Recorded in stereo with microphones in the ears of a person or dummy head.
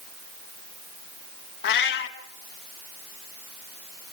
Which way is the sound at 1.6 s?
60° left (ahead or behind).